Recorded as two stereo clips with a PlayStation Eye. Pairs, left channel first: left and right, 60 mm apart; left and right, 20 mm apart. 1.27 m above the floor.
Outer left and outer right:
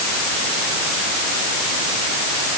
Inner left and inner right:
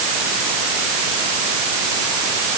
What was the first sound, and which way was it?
Only background noise.